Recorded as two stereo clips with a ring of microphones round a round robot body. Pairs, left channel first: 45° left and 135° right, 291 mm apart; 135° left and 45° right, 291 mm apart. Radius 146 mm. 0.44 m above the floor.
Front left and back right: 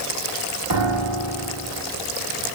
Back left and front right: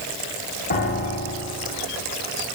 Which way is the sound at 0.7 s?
165° right.